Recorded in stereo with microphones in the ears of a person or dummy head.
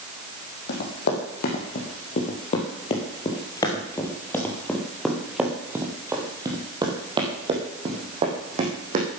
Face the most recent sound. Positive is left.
turn(degrees=-40)  # may be behind; listen again after turning